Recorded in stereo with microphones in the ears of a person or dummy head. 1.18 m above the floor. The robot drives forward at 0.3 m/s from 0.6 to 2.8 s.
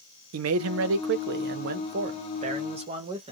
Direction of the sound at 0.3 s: 85° right.